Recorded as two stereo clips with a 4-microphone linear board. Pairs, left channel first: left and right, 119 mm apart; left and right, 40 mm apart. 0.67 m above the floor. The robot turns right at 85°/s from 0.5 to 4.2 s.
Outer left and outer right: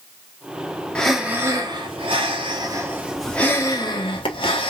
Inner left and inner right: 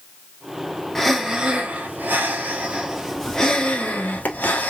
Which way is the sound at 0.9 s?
165° left.